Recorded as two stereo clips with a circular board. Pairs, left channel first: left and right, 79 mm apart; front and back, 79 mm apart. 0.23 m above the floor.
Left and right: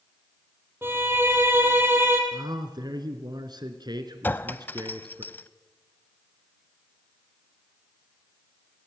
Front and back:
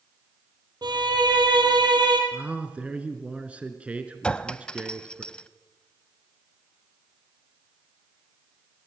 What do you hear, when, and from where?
0.8 s a violin: 150° right, 3.5 m
2.3 s a man speaking: 105° right, 2.5 m
4.2 s a clink: 65° left, 0.6 m